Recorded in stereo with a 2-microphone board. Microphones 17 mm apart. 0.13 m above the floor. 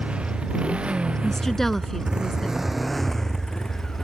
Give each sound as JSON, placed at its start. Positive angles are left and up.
{"t": 0.0, "sound": "a motorcycle", "side_deg": -85}
{"t": 1.2, "sound": "a woman speaking", "side_deg": 20}